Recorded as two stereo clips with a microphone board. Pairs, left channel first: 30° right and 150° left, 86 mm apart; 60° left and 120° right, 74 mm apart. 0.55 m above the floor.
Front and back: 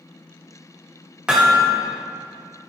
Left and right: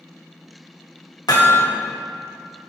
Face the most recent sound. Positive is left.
turn(degrees=70)